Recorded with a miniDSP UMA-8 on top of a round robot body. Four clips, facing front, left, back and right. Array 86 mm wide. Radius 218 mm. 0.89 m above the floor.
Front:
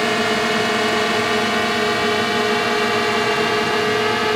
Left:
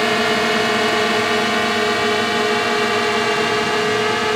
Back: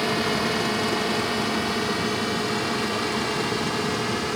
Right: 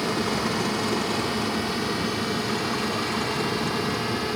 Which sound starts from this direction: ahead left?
A drone, at 0.0 s.